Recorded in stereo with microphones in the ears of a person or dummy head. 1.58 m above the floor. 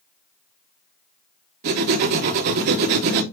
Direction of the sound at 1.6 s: 45° right (ahead or behind).